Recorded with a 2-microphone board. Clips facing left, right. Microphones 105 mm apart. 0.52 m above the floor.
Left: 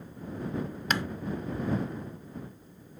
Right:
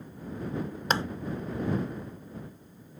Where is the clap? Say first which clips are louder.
Right 2 dB; 30° right (ahead or behind).